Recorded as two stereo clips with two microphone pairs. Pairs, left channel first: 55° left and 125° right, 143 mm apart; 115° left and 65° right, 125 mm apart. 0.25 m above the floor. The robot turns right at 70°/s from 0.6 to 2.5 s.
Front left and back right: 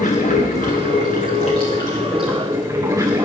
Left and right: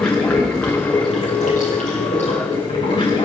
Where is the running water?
30° left, 3 m; by 3.3 s 165° left, 3 m.